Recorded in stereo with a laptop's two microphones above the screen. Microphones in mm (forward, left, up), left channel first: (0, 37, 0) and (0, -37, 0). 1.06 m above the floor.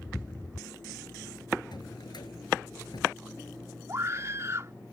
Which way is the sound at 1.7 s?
75° left (ahead or behind).